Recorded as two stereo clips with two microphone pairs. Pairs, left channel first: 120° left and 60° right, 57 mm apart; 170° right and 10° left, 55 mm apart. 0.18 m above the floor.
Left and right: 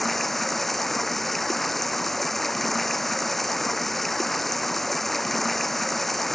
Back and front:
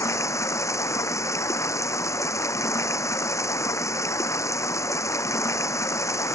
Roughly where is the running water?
Behind right.